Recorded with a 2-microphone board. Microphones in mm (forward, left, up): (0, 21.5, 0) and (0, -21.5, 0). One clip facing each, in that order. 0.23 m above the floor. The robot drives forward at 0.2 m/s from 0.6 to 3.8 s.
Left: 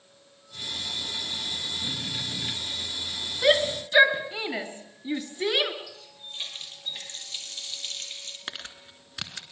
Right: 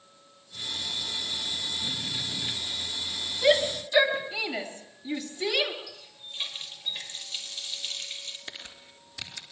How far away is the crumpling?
About 3 m.